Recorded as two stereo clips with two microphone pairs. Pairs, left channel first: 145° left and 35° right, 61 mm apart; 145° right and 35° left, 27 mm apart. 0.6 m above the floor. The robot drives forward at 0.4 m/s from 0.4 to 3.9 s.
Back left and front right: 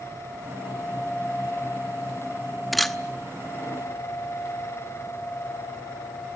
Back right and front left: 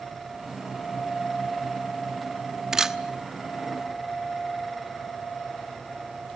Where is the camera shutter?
55° left, 0.8 m; by 3.0 s 70° left, 0.8 m.